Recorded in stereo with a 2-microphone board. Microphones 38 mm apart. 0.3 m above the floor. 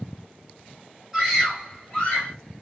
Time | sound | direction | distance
1.1 | a scream | 20° right (ahead or behind) | 1.7 m